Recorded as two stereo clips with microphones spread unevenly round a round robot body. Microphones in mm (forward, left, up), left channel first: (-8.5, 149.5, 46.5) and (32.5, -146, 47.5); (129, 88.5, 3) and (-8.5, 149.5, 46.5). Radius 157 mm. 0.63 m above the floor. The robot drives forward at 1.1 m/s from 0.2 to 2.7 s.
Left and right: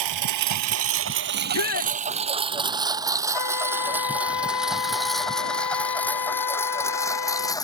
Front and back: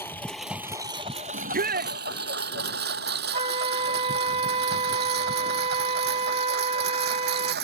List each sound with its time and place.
0.0 s a lawn mower: 110° right; by 7.6 s 175° left
1.3 s a shout: 140° left; by 2.0 s 145° left
3.3 s a flute: 115° left